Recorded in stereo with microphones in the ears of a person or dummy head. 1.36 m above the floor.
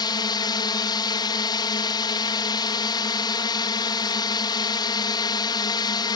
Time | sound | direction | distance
0.0 | a drone | 20° left (ahead or behind) | ?